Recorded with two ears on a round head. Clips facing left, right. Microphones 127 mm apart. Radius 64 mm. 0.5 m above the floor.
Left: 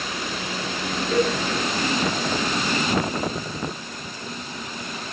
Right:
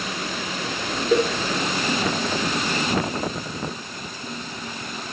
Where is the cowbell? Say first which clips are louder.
Right 2 dB; 85° right, 5.5 m.